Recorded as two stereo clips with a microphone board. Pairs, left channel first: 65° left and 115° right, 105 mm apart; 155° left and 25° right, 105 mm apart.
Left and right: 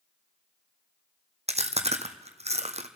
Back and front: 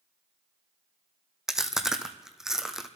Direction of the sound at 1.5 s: 110° right.